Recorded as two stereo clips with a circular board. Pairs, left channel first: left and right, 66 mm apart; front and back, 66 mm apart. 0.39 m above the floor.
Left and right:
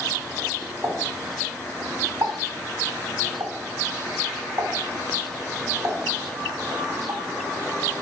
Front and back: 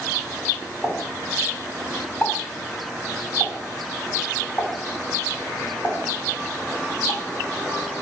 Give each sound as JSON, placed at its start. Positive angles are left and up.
{"t": 0.8, "sound": "a pop", "azimuth_deg": -65, "distance_m": 2.5}